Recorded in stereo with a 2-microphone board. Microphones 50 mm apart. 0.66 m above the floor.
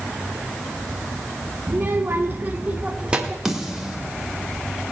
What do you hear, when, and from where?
1.7 s a child speaking: 40° right (ahead or behind), 0.9 m; by 3.4 s 15° right (ahead or behind), 1.6 m
3.5 s a snare drum: 10° right (ahead or behind), 1.9 m